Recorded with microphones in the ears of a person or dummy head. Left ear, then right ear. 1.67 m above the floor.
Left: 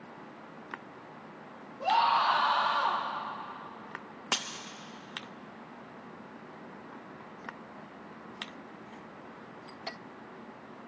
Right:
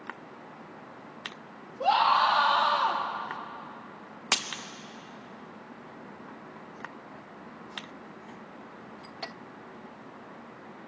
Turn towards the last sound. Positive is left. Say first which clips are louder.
# right 4 dB
turn(degrees=-15)  # may be behind; listen again after turning